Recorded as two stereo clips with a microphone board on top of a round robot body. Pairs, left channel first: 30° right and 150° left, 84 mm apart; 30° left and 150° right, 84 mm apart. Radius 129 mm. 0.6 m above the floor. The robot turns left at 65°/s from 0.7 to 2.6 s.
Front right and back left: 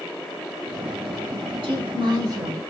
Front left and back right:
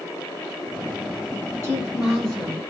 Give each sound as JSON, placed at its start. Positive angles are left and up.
{"t": 1.6, "sound": "a woman speaking", "azimuth_deg": 145, "distance_m": 2.0}